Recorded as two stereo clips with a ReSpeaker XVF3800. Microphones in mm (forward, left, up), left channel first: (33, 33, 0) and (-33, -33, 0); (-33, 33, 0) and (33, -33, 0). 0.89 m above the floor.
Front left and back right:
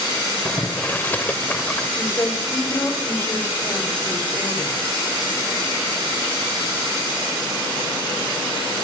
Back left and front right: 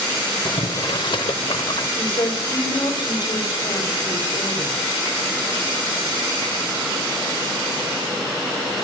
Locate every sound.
0.5 s boiling: 115° left, 1.3 m
2.0 s a woman speaking: 105° left, 4 m